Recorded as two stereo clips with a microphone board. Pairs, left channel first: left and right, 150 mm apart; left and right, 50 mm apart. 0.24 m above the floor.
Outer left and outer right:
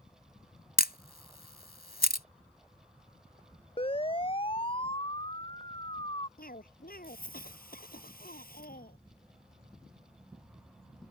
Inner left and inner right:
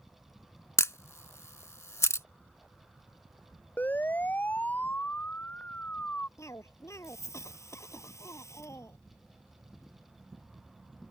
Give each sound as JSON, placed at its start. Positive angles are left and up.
{"t": 0.8, "sound": "a camera shutter", "side_deg": 75}
{"t": 3.8, "sound": "a siren", "side_deg": 35}
{"t": 6.4, "sound": "a cough", "side_deg": 70}